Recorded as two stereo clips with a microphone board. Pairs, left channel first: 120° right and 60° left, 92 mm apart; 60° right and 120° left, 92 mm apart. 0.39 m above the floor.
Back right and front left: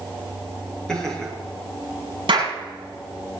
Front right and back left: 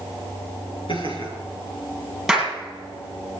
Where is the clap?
30° left, 8.5 m.